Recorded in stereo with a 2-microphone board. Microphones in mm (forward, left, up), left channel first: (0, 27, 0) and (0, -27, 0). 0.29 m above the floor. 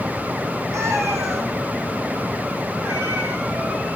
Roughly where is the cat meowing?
Right.